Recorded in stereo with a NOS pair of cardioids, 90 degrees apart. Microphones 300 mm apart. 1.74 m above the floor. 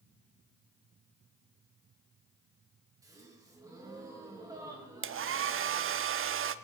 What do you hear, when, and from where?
3.0 s a gasp: 10° right, 3 m
5.0 s a hair dryer: 40° right, 0.7 m